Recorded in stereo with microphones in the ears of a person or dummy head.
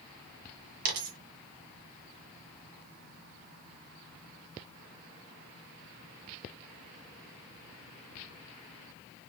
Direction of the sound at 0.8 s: 45° right (ahead or behind).